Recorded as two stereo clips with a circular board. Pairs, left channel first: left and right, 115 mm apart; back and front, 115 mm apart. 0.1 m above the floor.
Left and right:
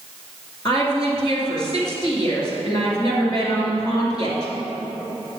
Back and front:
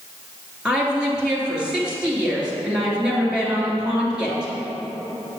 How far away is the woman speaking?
About 2.0 m.